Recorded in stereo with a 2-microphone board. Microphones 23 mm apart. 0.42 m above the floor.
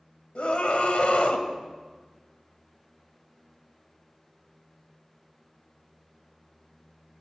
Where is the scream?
60° left (ahead or behind), 2 m.